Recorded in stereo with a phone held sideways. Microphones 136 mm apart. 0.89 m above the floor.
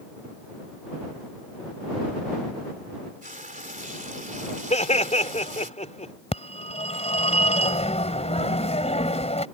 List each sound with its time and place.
3.2 s frying: 75° right (ahead or behind)
4.7 s laughter: 60° left (ahead or behind)
6.3 s a phone ringing: 55° left (ahead or behind)